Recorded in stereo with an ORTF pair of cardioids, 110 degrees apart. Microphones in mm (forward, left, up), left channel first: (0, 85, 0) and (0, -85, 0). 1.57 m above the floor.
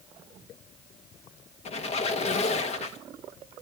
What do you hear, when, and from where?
1.6 s a squeak: 40° left, 1.7 m